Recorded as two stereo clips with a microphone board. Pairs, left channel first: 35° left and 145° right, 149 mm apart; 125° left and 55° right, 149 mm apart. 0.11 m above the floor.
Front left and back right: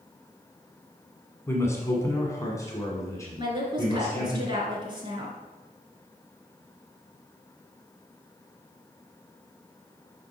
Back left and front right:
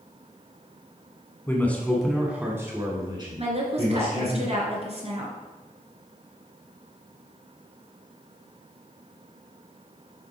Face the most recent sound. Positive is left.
turn(degrees=-95)